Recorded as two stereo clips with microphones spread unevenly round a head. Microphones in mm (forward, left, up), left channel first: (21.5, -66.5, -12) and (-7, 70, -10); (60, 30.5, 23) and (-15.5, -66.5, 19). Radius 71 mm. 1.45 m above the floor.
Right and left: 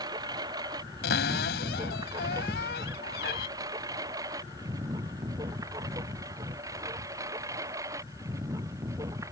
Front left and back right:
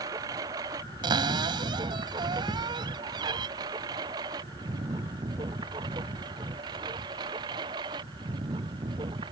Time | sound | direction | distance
0.0 | a lawn mower | 165° left | ?
1.0 | a cupboard door | 75° right | ?
2.5 | a thud | 5° right | ?